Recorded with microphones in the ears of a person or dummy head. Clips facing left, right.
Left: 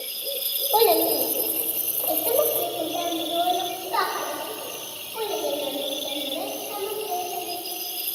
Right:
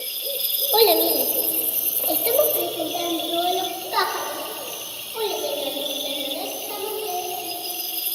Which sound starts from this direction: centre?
A child speaking, at 0.7 s.